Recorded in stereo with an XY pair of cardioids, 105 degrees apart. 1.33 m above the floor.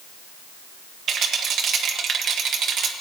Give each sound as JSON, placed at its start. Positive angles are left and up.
{"t": 1.1, "sound": "a rattle", "azimuth_deg": -60, "distance_m": 1.5}